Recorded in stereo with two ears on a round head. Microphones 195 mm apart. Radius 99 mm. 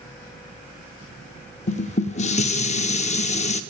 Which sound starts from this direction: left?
Dishes clattering, at 1.7 s.